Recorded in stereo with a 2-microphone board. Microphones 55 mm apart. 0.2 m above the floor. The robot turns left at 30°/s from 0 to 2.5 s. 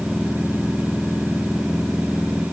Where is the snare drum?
No snare drum in this recording.